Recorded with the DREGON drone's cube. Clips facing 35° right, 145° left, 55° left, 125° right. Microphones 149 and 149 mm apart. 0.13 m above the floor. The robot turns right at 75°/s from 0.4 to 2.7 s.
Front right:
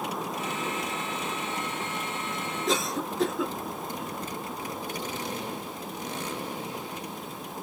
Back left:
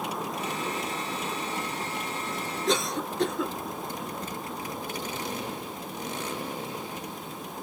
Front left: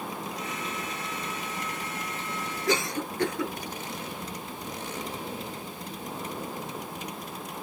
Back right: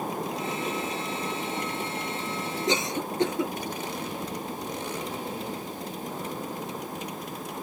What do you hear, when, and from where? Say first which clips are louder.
2.7 s a cough: back left 1 dB, front left 1 dB; 125° right, 1.1 m; by 3.5 s 120° right, 1.1 m